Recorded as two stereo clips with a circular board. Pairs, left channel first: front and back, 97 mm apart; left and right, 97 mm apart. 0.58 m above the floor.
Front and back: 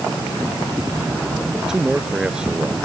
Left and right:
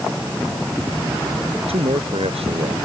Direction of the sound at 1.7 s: 95° right.